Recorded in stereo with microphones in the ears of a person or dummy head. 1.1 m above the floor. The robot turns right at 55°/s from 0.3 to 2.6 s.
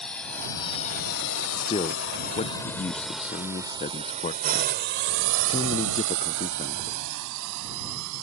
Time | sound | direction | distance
0.0 | a drone | centre (ahead or behind) | ?
1.6 | a man speaking | 20° left (ahead or behind) | ?